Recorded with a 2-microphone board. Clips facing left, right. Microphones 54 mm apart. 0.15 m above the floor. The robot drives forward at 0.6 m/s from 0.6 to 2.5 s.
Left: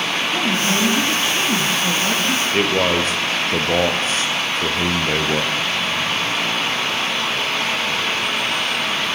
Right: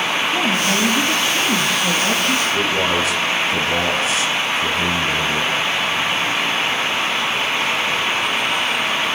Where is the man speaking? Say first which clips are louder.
Left 1 dB; 40° left (ahead or behind), 3.5 m.